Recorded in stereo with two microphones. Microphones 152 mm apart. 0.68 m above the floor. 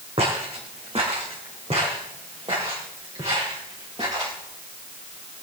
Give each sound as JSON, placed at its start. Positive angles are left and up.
{"t": 0.2, "sound": "footsteps", "side_deg": -40, "distance_m": 3.0}